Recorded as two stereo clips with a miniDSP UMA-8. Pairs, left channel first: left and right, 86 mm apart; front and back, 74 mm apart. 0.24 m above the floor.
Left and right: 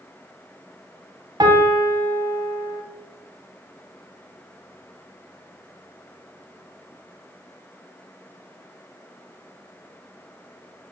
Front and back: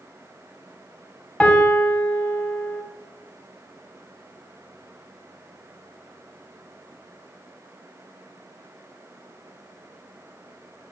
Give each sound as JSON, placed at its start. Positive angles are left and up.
{"t": 1.4, "sound": "a piano", "azimuth_deg": -70, "distance_m": 0.5}